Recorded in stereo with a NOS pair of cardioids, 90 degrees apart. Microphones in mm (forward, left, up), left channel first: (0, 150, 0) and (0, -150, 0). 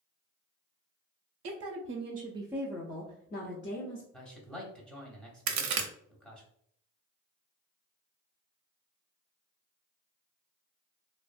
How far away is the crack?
About 0.5 m.